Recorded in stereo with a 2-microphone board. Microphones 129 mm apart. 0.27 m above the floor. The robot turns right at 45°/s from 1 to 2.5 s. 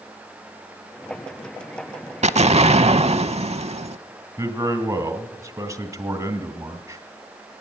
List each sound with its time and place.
2.2 s an explosion: 60° right (ahead or behind), 0.6 m; by 4.0 s 55° right (ahead or behind), 0.6 m
4.4 s a man speaking: 25° right (ahead or behind), 1.7 m